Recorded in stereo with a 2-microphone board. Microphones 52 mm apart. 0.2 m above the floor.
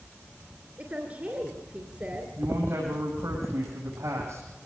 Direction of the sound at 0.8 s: 30° right (ahead or behind).